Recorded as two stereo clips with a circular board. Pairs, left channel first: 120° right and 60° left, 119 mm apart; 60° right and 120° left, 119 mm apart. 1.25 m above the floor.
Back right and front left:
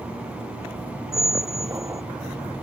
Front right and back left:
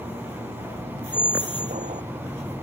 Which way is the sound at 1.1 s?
120° left.